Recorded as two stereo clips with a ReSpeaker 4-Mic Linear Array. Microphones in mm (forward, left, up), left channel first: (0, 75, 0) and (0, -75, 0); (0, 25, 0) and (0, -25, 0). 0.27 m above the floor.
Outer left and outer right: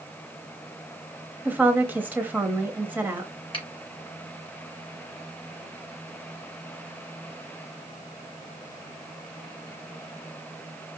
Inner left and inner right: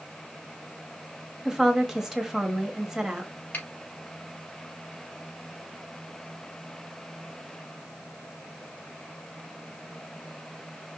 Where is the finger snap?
35° left (ahead or behind), 3 m.